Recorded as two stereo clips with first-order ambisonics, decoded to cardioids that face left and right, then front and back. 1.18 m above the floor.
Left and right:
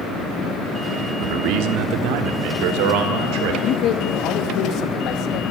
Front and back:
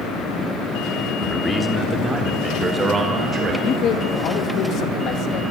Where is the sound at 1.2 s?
85° right, 2.5 m; by 3.5 s 115° right, 4.5 m.